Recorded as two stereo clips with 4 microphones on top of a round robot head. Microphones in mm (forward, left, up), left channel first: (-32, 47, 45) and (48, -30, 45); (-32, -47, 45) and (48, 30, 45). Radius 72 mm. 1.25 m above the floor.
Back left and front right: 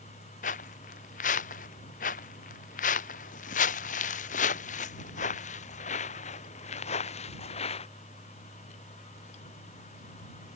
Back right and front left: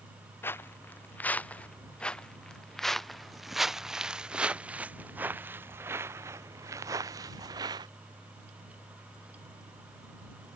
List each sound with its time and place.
0.4 s footsteps: 150° left; by 7.9 s 100° left